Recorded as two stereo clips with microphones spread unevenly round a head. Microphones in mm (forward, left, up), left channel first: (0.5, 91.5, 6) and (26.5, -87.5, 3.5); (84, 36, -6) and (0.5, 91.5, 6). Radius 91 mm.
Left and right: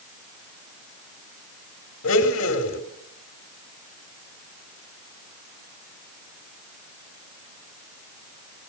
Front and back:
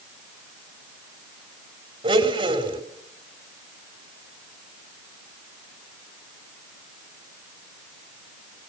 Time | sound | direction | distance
2.0 | a blender | 115° left | 3 m